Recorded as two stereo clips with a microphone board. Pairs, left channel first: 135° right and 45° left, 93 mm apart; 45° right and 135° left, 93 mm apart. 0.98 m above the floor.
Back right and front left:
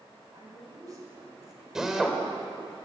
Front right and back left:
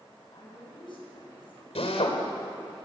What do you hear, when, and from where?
0.3 s a woman speaking: 10° right, 8.5 m
1.8 s a drill: 40° right, 3.5 m